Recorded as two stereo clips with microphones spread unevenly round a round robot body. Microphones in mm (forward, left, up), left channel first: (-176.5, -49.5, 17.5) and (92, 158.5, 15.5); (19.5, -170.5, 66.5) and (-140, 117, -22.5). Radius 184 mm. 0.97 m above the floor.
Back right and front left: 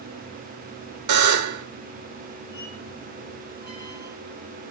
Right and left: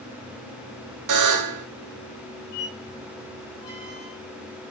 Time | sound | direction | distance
1.1 | a buzzer | 75° left | 1.3 m
2.5 | a squeak | 35° right | 6.5 m